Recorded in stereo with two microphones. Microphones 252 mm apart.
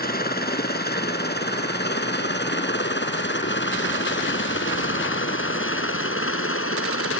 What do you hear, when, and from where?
0.0 s a helicopter: 35° left (ahead or behind); by 7.2 s 55° left (ahead or behind)